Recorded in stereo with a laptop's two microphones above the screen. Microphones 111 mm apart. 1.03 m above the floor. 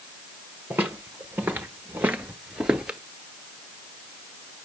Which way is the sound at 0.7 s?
20° right (ahead or behind).